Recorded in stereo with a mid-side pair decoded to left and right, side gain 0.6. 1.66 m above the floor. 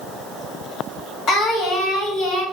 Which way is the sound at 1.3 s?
65° left.